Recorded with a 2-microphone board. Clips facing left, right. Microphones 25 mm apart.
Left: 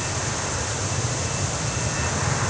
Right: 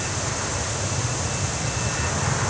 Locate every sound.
Only background noise.